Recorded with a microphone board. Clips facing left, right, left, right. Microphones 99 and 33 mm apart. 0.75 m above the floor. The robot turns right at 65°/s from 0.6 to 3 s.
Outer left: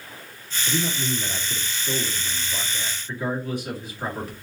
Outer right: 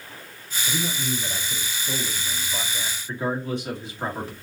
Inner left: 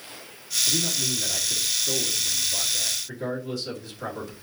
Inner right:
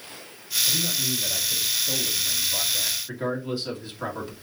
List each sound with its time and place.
0.7 s a man speaking: 60° left, 1.8 m; by 4.3 s 150° right, 1.8 m